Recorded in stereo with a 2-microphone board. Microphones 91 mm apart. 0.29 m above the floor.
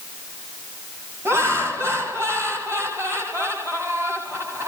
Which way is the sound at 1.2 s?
30° right (ahead or behind).